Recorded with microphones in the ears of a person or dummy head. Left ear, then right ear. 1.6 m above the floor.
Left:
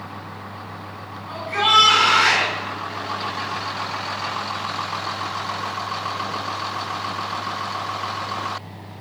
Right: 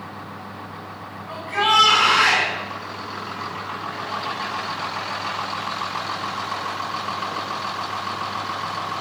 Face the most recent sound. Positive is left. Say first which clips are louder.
# left 2 dB
turn(degrees=0)  # may be behind; listen again after turning